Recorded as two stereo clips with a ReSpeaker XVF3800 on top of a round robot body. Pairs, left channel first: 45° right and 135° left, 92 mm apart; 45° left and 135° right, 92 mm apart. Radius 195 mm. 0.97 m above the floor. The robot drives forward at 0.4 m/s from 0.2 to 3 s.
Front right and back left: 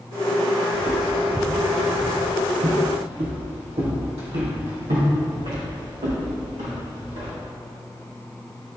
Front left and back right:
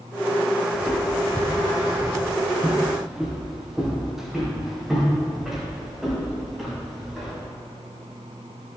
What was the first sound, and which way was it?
Footsteps, 35° right.